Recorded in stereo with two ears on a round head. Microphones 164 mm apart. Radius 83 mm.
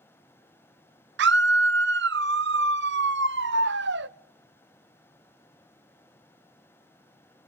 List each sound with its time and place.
1.2 s a scream: 70° right (ahead or behind), 0.8 m